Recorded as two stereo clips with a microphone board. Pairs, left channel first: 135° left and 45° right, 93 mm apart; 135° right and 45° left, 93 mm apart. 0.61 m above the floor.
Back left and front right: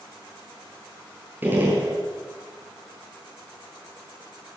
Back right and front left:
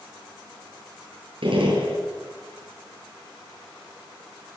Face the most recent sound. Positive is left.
turn(degrees=25)